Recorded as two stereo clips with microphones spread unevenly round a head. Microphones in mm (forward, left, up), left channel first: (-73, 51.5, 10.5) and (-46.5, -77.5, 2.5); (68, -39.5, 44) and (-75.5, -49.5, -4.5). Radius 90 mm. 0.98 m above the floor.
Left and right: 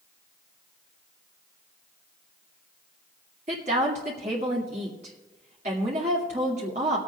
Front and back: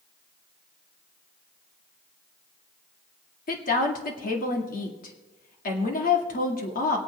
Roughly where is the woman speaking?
Ahead right.